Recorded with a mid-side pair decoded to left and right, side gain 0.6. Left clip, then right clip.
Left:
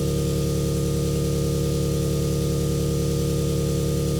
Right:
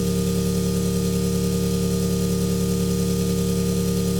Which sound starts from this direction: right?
An engine running, at 0.0 s.